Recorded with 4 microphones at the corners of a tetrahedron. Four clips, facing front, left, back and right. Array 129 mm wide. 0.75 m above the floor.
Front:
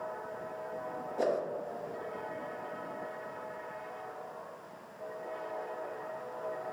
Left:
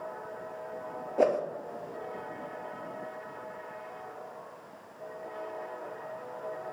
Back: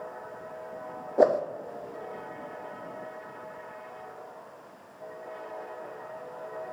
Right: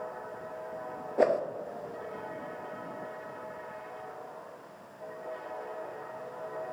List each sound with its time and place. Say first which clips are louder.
1.2 s a whoosh: even, back 10 dB; 170° left, 0.7 m